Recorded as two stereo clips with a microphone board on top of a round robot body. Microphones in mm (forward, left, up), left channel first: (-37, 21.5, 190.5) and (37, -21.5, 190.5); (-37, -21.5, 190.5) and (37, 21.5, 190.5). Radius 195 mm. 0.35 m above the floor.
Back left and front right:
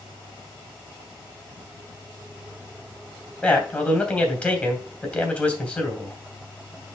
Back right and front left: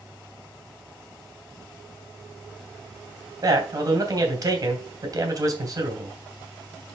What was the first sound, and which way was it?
A man speaking, 75° left.